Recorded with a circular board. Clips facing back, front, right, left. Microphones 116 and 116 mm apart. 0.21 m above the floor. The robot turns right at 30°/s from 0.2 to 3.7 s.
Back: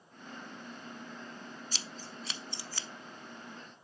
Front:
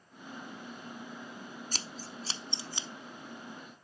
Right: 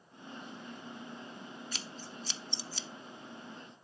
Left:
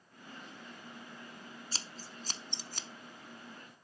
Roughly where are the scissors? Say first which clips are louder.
Front 2 dB, right 3 dB; ahead left.